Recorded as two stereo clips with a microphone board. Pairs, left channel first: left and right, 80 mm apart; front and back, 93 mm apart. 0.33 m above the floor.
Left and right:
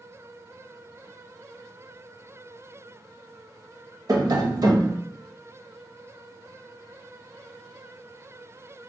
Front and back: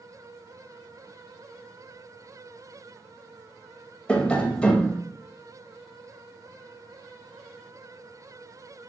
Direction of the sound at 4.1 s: 75° right.